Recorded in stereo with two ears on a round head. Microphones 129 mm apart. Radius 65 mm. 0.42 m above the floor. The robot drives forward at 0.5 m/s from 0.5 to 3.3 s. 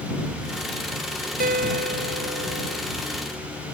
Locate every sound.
1.4 s a guitar: 60° right (ahead or behind); by 2.8 s 70° right (ahead or behind)